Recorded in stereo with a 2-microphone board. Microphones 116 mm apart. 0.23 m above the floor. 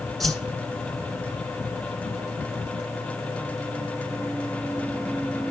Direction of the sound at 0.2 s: Centre (ahead or behind).